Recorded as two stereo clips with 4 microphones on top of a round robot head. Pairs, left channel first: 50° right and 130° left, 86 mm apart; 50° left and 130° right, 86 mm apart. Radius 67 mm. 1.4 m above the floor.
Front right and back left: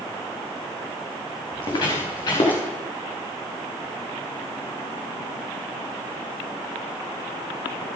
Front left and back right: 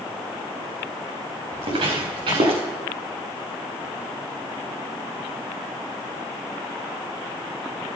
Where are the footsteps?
100° right, 5.5 m.